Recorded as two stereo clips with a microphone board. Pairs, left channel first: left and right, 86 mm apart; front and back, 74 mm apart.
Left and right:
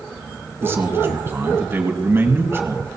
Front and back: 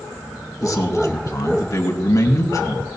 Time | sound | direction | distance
0.6 | a man speaking | 35° right | 2.5 m